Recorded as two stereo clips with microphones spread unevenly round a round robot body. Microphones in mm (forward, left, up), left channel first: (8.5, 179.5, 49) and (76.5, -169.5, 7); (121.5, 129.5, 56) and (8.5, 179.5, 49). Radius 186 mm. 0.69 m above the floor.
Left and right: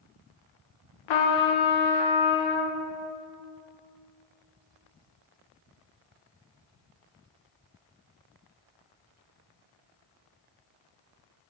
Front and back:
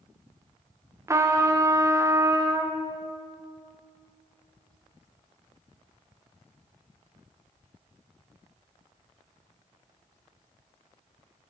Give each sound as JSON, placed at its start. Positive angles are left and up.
{"t": 1.1, "sound": "a trumpet", "azimuth_deg": 85, "distance_m": 0.7}